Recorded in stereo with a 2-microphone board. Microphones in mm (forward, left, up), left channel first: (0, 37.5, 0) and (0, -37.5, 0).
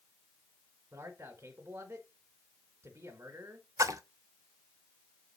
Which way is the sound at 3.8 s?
45° right (ahead or behind).